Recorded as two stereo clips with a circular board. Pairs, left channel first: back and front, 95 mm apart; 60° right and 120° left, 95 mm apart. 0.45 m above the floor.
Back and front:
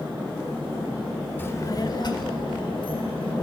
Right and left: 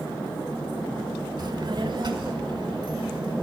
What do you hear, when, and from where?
1.4 s a child speaking: 120° left, 0.9 m; by 3.3 s 160° left, 3.5 m